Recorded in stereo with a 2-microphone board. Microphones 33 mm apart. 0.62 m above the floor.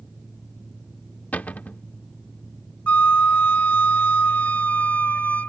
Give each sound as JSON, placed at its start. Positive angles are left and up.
{"t": 1.3, "sound": "a cupboard door", "side_deg": 60}
{"t": 2.9, "sound": "a flute", "side_deg": 55}